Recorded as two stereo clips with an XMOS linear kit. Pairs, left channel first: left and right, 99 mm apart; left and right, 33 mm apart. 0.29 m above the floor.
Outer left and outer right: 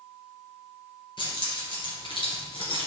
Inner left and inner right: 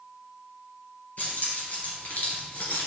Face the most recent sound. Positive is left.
turn(degrees=65)  # may be behind; listen again after turning